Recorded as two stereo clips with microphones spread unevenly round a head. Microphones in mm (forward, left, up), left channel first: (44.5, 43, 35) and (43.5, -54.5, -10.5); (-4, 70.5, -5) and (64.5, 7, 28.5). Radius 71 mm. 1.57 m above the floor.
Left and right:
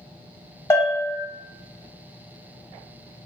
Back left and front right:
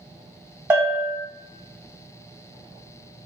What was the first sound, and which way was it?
A bell, 30° left.